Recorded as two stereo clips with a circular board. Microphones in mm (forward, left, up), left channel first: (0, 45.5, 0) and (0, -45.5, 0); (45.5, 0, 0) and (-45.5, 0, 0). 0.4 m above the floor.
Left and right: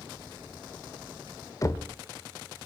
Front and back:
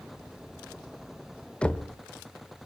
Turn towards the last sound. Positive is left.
turn(degrees=70)